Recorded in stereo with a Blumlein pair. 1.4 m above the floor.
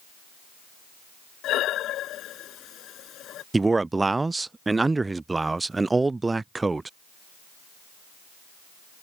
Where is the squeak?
No squeak in this recording.